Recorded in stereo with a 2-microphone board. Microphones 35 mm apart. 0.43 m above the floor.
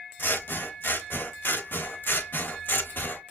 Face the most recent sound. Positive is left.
turn(degrees=75)  # may be behind; listen again after turning